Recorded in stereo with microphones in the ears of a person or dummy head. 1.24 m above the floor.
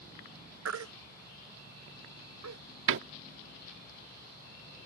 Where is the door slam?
65° right (ahead or behind).